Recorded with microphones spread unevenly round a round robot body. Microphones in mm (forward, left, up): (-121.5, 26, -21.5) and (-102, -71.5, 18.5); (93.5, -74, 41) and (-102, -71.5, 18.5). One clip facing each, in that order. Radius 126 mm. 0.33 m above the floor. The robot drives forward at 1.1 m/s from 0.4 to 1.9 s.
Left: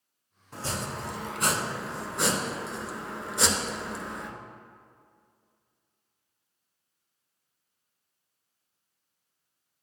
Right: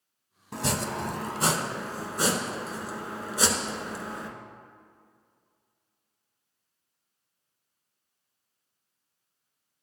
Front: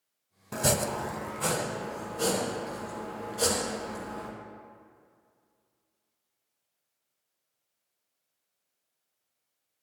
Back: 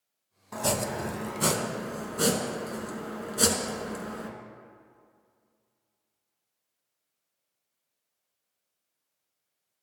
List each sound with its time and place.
0.5 s chopping: 60° right, 0.6 m; by 4.3 s 155° right, 1.3 m